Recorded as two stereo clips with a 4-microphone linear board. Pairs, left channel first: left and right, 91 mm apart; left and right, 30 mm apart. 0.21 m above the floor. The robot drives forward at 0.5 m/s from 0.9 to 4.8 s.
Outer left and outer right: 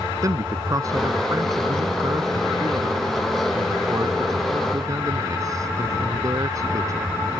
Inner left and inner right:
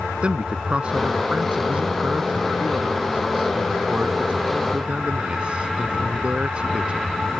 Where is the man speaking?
40° right (ahead or behind).